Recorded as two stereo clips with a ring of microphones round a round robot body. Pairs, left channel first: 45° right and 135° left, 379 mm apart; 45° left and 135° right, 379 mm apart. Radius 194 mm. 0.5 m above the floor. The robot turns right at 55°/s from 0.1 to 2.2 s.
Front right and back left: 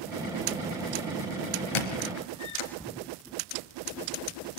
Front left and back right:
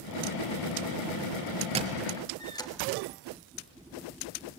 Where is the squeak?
60° right, 3 m; by 2.7 s 35° right, 3 m.